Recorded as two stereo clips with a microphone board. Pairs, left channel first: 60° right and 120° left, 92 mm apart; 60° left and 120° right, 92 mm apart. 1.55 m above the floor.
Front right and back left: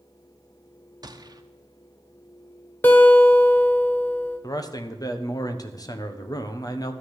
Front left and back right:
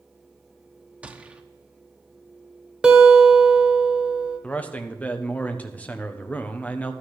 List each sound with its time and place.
1.0 s a gunshot: 165° left, 0.9 m
2.8 s a guitar: 60° right, 1.3 m
4.4 s a man speaking: 15° right, 1.1 m